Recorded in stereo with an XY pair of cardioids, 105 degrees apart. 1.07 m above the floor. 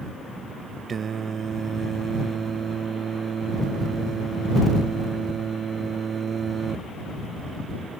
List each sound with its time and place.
0.9 s singing: 45° right